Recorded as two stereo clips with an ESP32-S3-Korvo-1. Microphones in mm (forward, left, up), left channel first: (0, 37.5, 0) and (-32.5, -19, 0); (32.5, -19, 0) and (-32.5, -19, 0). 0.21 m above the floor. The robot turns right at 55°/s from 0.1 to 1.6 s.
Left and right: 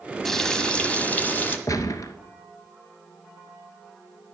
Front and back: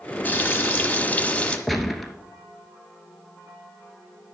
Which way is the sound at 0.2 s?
20° right.